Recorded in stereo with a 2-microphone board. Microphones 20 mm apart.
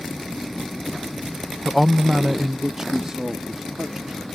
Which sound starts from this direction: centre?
A man speaking, at 1.6 s.